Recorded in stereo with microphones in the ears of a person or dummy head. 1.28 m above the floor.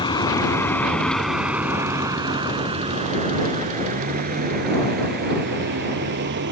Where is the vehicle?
20° left (ahead or behind); by 6.5 s 65° right (ahead or behind).